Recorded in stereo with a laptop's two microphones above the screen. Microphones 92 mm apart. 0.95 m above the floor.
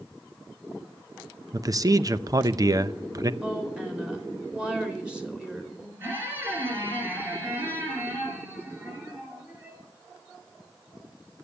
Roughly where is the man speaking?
Right.